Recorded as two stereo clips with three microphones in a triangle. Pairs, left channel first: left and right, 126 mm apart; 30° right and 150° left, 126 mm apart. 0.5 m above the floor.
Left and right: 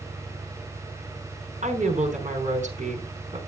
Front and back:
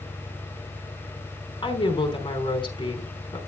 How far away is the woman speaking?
About 4.5 m.